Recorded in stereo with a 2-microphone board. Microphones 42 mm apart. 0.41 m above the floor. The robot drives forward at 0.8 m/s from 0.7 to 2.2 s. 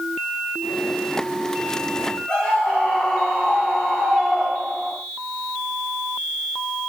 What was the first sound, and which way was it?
A scream, 10° left (ahead or behind).